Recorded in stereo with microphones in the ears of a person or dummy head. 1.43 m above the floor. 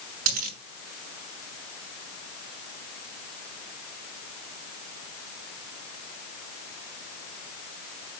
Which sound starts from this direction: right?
A dropped coin, at 0.3 s.